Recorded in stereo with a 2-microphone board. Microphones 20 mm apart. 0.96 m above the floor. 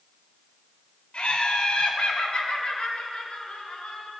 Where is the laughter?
85° left, 3 m; by 4.1 s 65° left (ahead or behind), 6 m.